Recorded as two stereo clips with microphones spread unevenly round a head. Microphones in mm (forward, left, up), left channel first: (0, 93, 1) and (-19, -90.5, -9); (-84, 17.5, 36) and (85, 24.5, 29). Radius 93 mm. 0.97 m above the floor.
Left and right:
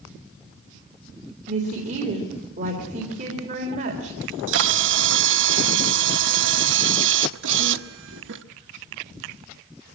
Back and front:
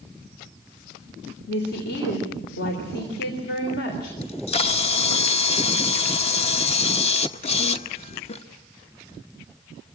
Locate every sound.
1.5 s a woman speaking: 145° right, 3.5 m
4.2 s a camera shutter: 120° right, 0.8 m